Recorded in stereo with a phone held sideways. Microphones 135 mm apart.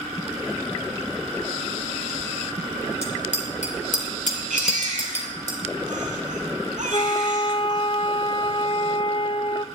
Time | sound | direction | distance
3.0 | a bicycle bell | 60° left (ahead or behind) | 3 m
4.5 | a baby crying | 80° right | 4.5 m
6.9 | a flute | 40° left (ahead or behind) | 0.5 m